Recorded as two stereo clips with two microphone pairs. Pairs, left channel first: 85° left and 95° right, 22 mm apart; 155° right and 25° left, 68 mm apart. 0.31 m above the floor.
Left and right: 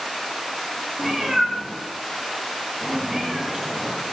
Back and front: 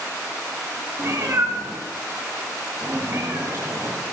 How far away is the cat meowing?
About 8 m.